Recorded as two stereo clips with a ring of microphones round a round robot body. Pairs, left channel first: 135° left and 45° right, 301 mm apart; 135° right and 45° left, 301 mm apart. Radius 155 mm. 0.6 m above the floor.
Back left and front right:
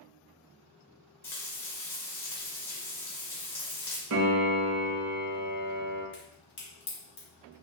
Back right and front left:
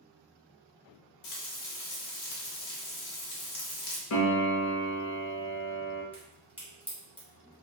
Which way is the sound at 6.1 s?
145° left.